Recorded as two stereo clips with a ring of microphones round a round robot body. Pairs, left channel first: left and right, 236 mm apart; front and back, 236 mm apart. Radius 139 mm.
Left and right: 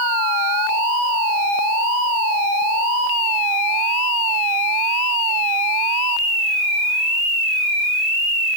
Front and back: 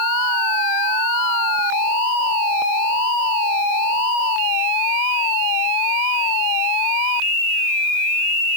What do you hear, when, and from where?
Only background noise.